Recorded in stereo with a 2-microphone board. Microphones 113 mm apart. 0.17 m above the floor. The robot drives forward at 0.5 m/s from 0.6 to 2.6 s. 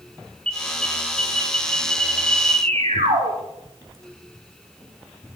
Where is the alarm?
65° right (ahead or behind), 8 m; by 3.3 s 70° right (ahead or behind), 8 m.